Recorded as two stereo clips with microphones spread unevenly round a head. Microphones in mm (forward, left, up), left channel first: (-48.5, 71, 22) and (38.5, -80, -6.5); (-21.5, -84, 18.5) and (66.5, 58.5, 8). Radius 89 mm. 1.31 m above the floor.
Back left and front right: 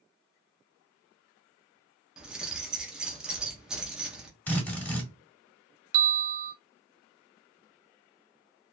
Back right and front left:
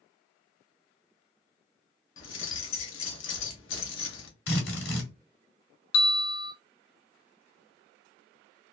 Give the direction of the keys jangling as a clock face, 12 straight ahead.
5 o'clock.